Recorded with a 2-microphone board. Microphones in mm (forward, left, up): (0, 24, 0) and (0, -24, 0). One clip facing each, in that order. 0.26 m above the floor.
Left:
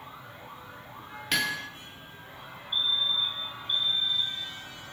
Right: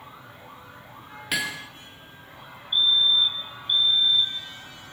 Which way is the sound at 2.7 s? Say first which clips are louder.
Right 7 dB; 45° right (ahead or behind).